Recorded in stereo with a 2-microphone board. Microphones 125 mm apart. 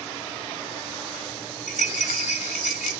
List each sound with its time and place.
1.7 s a rattle: 65° left (ahead or behind), 0.7 m